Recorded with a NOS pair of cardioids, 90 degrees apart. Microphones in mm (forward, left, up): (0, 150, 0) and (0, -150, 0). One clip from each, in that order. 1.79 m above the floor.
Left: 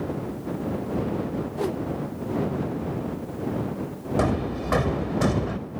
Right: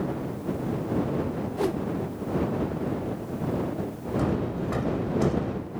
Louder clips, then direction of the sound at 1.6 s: Right 1 dB; 5° right.